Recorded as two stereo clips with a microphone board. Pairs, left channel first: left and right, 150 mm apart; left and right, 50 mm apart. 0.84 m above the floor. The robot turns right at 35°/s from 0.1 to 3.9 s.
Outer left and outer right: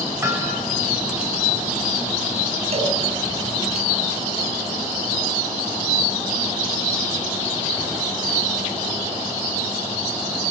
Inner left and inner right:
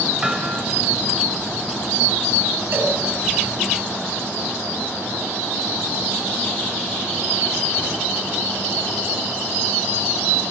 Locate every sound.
0.2 s hammering: 20° right (ahead or behind), 4 m; by 0.6 s 5° right (ahead or behind), 4 m
2.7 s a cowbell: 45° right (ahead or behind), 4 m; by 3.0 s 40° right (ahead or behind), 4 m